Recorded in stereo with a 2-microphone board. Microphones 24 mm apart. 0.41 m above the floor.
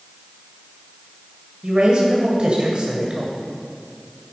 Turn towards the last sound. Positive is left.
turn(degrees=-45)  # may be behind; listen again after turning